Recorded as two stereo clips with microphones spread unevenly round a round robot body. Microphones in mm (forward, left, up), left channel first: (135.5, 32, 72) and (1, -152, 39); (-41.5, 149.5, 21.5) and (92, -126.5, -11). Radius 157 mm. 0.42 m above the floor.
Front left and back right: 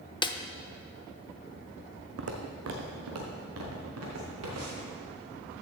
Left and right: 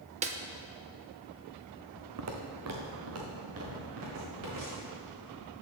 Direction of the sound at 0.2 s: 20° right.